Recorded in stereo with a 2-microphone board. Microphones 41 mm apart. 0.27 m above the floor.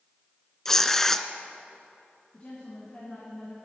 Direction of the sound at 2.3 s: 35° left (ahead or behind).